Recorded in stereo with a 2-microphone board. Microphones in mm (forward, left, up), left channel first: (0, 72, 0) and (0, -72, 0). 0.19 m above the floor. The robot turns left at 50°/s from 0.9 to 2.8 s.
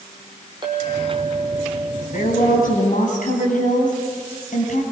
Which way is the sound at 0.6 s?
150° right.